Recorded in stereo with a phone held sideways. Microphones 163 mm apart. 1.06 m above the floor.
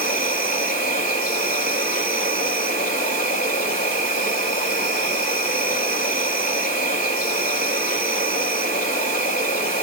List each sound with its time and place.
0.0 s an insect: 65° left (ahead or behind), 3.5 m